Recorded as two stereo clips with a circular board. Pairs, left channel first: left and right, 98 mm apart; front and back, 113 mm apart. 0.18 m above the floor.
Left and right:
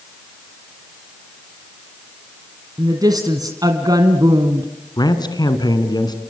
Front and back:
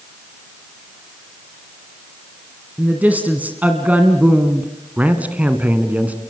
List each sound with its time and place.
2.8 s a woman speaking: 110° right, 1.8 m
5.0 s a man speaking: 105° left, 2 m